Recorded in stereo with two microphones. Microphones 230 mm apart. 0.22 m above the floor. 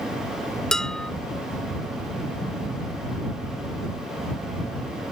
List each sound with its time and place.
0.7 s dishes clattering: centre (ahead or behind)